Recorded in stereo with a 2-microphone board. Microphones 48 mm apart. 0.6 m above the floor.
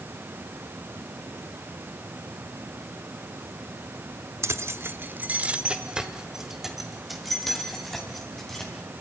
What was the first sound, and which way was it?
Keys jangling, 70° right (ahead or behind).